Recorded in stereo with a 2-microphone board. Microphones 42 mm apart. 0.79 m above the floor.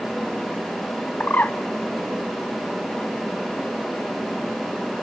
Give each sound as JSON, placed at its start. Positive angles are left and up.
{"t": 1.2, "sound": "a bird", "side_deg": 40, "distance_m": 0.7}